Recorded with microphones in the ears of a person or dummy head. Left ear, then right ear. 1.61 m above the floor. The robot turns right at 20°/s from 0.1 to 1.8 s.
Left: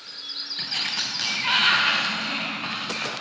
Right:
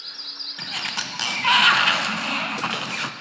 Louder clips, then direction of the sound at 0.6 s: Left 2 dB; 20° right (ahead or behind).